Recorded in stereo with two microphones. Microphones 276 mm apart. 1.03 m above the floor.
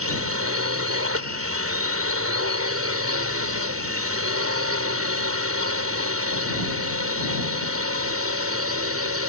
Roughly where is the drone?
Right.